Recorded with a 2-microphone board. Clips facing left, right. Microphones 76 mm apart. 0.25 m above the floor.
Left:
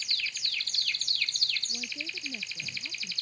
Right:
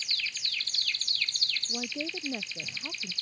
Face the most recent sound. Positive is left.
turn(degrees=-55)  # may be behind; listen again after turning